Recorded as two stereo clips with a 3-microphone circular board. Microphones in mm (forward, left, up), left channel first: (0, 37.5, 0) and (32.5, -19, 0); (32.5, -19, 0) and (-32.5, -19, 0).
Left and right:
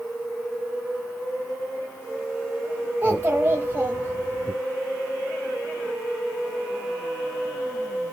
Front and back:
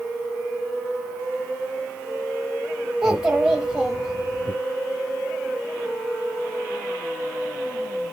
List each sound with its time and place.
3.0 s a child speaking: 105° right, 0.9 m